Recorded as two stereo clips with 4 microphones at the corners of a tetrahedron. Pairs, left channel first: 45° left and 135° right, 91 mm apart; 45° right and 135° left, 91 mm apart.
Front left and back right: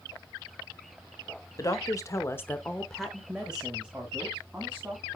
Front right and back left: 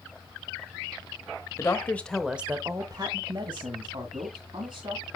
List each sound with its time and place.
1.6 s a woman speaking: 5° left, 1.2 m; by 5.0 s 150° left, 3 m